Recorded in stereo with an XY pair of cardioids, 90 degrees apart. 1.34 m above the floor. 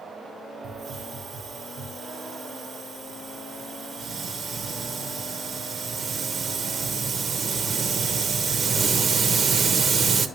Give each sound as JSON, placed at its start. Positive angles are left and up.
{"t": 0.6, "sound": "a hiss", "azimuth_deg": -55, "distance_m": 0.9}